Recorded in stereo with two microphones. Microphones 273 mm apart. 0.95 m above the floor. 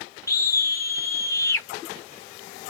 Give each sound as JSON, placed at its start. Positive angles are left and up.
{"t": 0.3, "sound": "a scream", "side_deg": 10, "distance_m": 0.8}